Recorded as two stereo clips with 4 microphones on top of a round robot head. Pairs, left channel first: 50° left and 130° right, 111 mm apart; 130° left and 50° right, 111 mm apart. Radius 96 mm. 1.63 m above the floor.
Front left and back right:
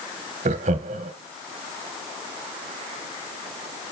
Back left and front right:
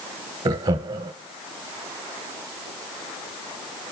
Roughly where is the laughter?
Right.